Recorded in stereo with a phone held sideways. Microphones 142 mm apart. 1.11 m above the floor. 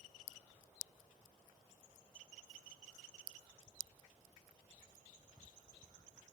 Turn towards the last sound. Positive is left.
No sound to turn to.